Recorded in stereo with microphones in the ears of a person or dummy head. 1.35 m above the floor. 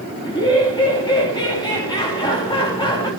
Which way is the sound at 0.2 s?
20° left (ahead or behind).